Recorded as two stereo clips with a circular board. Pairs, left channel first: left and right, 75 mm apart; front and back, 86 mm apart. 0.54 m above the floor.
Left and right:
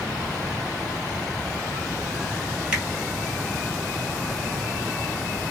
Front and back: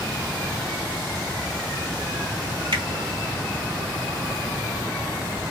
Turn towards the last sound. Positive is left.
turn(degrees=-165)